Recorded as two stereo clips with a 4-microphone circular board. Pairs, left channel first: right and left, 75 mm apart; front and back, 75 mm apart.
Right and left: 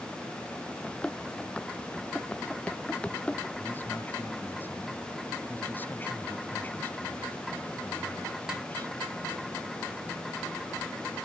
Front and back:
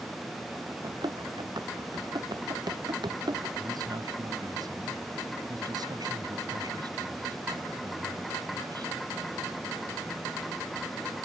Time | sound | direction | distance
0.8 | running footsteps | 165° right | ?
3.6 | a man speaking | 155° right | ?